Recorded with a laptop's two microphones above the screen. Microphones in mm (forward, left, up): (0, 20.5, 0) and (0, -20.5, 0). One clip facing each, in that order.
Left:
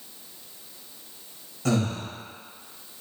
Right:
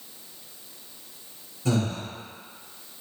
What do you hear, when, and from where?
1.6 s breathing: 80° left, 1.0 m